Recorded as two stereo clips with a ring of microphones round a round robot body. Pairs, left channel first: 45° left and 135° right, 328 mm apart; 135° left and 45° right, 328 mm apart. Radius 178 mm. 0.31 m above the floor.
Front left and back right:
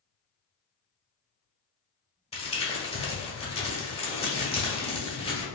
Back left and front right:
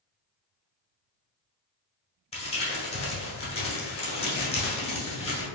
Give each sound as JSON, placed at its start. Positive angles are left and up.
{"t": 2.3, "sound": "crumpling", "azimuth_deg": 90, "distance_m": 1.1}